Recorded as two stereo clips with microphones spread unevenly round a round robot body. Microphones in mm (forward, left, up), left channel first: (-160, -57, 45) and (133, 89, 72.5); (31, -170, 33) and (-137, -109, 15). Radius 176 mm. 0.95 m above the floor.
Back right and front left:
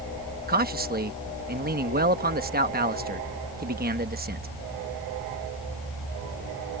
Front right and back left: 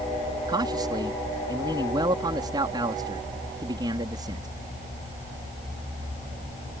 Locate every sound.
0.5 s a man speaking: 90° left